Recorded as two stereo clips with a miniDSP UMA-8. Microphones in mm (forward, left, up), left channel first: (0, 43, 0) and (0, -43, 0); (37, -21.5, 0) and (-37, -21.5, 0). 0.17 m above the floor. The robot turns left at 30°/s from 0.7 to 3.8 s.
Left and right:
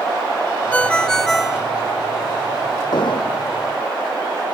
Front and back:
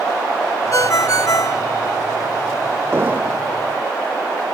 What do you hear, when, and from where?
0.7 s a ringtone: 20° left; by 1.6 s 10° right
2.9 s an explosion: 120° left; by 3.5 s 105° left